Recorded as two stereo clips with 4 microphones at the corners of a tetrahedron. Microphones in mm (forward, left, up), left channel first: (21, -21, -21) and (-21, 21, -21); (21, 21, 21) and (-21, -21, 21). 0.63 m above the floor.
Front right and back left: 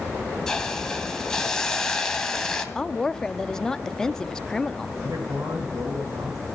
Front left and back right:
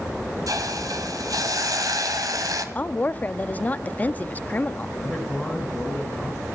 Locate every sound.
0.5 s a hiss: 125° right, 2.5 m
2.8 s a woman speaking: 20° left, 0.6 m
5.0 s a man speaking: 135° left, 9 m